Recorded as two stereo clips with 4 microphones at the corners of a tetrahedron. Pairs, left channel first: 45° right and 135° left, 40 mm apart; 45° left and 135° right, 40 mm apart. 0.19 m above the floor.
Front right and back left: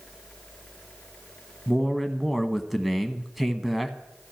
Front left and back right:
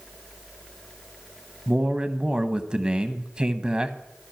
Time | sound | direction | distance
1.7 | a man speaking | 145° right | 1.0 m